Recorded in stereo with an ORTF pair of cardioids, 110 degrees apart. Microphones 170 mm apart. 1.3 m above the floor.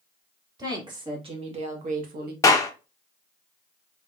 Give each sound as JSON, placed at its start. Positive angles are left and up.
{"t": 0.6, "sound": "a woman speaking", "azimuth_deg": -25, "distance_m": 2.5}
{"t": 2.4, "sound": "a clap", "azimuth_deg": 20, "distance_m": 1.2}